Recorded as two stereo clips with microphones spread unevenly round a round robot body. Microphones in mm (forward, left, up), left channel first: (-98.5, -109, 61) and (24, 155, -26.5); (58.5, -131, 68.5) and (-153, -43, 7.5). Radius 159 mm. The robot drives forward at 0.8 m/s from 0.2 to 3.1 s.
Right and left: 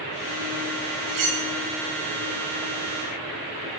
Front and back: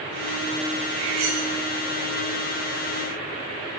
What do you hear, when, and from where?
1.1 s cutlery clinking: 85° left, 2 m; by 1.4 s 90° left, 2 m